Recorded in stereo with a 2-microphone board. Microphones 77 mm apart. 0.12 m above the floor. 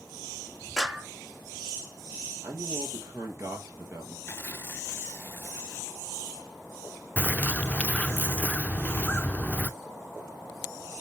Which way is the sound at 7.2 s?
20° left (ahead or behind).